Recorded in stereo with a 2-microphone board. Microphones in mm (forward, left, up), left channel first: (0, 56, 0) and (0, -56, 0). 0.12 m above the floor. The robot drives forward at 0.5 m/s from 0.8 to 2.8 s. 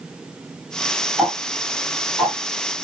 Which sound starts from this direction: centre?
Ticking, at 1.2 s.